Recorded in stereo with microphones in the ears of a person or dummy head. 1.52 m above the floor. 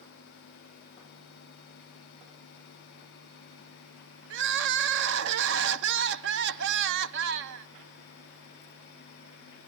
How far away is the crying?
About 0.7 m.